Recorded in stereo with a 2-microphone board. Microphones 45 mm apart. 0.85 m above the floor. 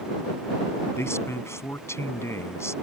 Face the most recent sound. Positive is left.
turn(degrees=80)